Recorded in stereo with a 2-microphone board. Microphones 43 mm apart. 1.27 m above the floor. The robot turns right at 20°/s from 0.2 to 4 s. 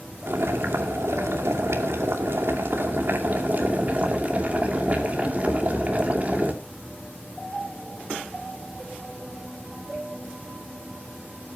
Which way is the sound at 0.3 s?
110° right.